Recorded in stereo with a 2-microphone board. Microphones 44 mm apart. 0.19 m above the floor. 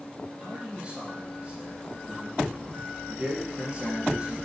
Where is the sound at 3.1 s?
25° right (ahead or behind), 3.5 m.